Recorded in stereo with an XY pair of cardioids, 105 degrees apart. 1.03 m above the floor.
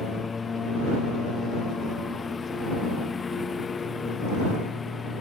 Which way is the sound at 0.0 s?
35° left.